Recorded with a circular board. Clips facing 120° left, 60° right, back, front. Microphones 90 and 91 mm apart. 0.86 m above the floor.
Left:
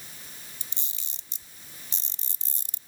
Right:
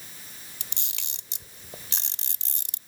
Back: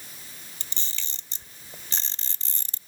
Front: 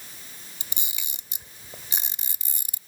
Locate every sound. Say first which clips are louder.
0.6 s a camera shutter: right 4 dB, even; 75° right